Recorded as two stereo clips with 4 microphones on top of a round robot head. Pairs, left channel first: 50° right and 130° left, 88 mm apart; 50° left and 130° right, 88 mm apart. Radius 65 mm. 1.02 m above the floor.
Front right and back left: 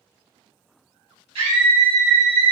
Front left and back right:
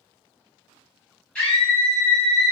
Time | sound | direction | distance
1.4 | a scream | 125° left | 1.6 m